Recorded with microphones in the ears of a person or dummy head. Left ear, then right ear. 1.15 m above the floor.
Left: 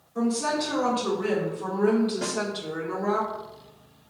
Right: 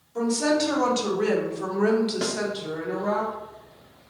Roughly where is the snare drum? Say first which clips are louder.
Right 2 dB; right.